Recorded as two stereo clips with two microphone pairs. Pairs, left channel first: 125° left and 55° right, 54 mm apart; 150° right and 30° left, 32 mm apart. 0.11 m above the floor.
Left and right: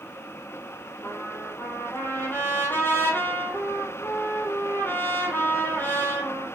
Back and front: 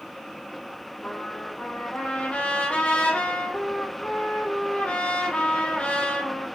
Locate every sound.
1.0 s a trumpet: 165° left, 3 m